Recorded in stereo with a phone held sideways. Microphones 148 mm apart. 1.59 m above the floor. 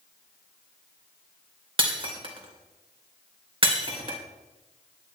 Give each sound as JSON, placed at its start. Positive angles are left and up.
{"t": 1.8, "sound": "breaking glass", "side_deg": -40, "distance_m": 2.5}